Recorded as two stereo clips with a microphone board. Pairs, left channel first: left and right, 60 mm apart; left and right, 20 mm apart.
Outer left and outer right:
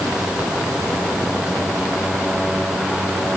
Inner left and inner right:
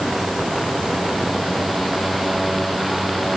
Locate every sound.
Only background noise.